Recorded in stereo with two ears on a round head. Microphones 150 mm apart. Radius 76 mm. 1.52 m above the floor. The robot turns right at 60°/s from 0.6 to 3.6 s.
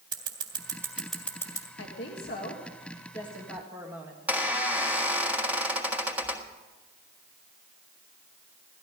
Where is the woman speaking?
80° left, 2.0 m; by 4.2 s 170° right, 2.0 m.